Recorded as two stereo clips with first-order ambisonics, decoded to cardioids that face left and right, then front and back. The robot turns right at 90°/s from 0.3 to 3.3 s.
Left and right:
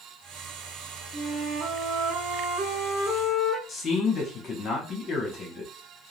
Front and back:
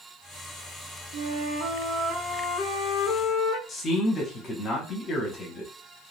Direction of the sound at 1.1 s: 175° left.